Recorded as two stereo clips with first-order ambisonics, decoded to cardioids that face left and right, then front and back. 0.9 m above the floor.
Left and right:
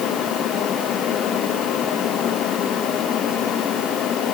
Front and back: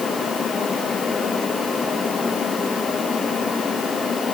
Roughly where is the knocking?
No knocking in this recording.